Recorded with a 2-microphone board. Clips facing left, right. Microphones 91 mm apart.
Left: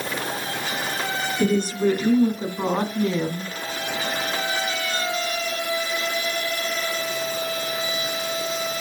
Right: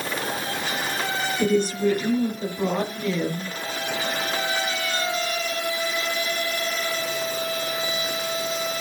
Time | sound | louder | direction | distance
1.4 | a woman speaking | even | 55° left (ahead or behind) | 2.5 m